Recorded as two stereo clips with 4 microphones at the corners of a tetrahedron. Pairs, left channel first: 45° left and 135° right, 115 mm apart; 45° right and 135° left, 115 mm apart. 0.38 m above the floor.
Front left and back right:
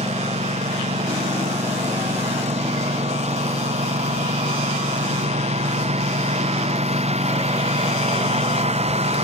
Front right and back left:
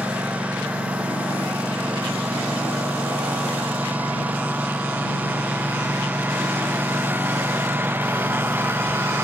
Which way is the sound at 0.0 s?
145° right.